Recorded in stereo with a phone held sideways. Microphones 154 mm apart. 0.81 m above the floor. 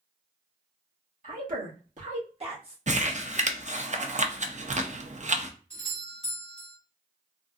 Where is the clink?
I don't hear a clink.